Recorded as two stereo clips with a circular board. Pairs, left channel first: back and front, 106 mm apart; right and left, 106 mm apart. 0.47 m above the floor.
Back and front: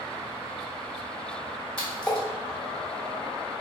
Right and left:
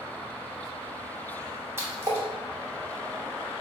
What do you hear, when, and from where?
1.8 s a splash: 115° left, 0.8 m